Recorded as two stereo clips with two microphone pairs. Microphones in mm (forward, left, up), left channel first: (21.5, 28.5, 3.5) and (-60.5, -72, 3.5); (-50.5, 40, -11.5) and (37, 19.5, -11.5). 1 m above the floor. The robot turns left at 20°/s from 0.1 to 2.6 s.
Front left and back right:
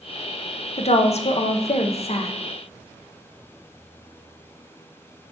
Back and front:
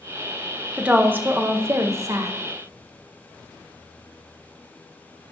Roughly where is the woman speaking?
Ahead left.